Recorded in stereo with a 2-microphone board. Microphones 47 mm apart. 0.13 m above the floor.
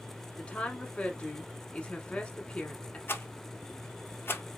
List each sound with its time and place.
0.4 s a woman speaking: 25° left (ahead or behind), 1.2 m
3.1 s a rattle: 55° left (ahead or behind), 0.7 m